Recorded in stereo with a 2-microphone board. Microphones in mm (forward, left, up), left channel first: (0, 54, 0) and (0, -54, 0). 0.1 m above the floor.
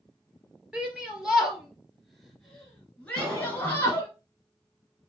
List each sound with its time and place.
0.7 s a shout: 10° right (ahead or behind), 2.5 m; by 4.1 s 25° left (ahead or behind), 1.8 m
3.2 s a cough: 25° right (ahead or behind), 1.6 m